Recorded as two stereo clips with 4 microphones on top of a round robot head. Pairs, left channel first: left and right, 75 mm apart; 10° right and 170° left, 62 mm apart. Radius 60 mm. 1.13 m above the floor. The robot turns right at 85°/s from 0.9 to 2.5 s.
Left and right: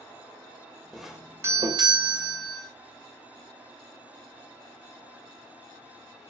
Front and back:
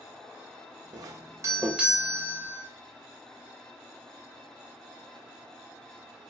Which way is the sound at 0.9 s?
175° left.